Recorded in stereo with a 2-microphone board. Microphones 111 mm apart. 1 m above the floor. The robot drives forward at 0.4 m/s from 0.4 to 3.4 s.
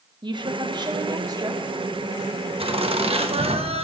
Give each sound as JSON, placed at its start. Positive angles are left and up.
{"t": 0.2, "sound": "a woman speaking", "side_deg": -45, "distance_m": 0.9}
{"t": 2.6, "sound": "laughter", "side_deg": -55, "distance_m": 1.2}